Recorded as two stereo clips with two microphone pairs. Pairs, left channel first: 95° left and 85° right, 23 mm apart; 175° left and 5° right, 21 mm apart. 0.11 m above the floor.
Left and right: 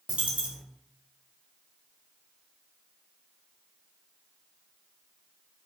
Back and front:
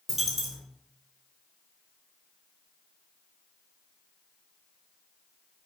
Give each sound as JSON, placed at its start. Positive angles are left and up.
{"t": 0.1, "sound": "a dropped coin", "azimuth_deg": -95, "distance_m": 1.3}